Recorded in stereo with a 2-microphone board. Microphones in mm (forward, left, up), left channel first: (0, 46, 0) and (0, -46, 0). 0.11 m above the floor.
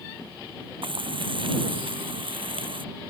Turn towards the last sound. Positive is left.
turn(degrees=-70)  # may be behind; listen again after turning